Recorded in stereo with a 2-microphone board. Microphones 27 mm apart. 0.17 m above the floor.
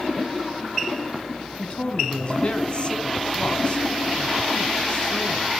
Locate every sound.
1.6 s a man speaking: 40° left (ahead or behind), 1.9 m